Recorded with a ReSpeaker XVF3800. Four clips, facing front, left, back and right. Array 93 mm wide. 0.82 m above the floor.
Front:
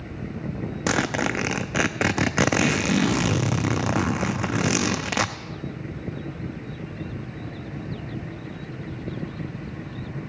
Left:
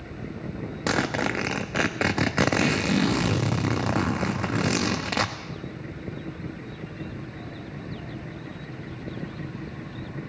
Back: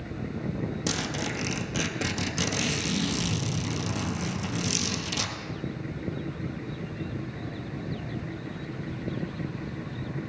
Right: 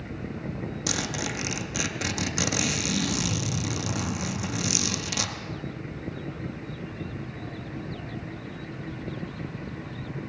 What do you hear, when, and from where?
0.9 s a zipper: 35° left, 0.5 m